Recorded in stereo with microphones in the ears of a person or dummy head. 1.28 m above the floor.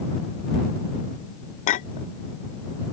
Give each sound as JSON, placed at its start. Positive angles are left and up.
{"t": 1.7, "sound": "a clink", "side_deg": 50}